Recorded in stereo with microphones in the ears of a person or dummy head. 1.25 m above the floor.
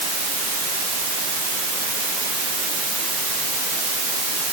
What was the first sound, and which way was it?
Only background noise.